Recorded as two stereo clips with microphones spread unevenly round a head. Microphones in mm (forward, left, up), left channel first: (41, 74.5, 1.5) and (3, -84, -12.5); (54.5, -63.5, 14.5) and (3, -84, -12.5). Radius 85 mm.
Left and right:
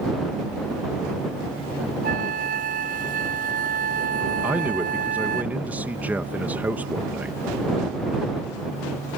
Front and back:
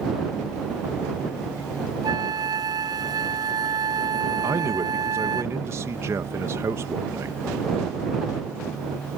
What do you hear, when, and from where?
2.0 s a flute: 150° right
4.4 s a man speaking: straight behind